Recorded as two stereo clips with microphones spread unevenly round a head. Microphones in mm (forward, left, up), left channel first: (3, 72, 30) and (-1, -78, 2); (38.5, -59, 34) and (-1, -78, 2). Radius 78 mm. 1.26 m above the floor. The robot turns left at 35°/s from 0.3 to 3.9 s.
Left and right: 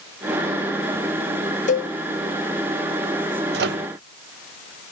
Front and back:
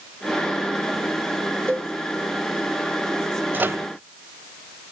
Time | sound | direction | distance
1.7 | a cowbell | 115° left | 0.6 m
3.5 | a microwave | 105° right | 0.9 m